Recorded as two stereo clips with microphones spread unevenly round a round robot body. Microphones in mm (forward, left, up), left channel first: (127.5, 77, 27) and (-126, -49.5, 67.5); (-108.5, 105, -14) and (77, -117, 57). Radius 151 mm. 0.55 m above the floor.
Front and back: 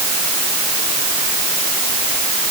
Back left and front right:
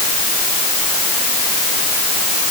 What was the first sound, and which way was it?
Only background noise.